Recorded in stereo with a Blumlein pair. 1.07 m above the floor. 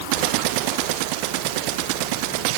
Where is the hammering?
I don't hear hammering.